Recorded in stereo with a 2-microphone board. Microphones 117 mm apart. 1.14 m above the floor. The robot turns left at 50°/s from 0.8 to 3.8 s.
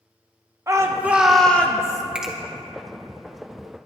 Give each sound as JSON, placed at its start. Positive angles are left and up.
{"t": 0.7, "sound": "a shout", "azimuth_deg": -155, "distance_m": 0.9}
{"t": 2.1, "sound": "a finger snap", "side_deg": -10, "distance_m": 1.4}